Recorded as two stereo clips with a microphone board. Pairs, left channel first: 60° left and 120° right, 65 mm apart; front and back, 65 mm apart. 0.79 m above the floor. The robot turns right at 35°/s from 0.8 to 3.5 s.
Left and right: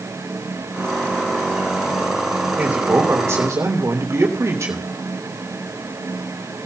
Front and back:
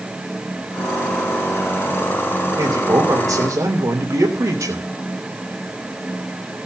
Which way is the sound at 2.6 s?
170° left.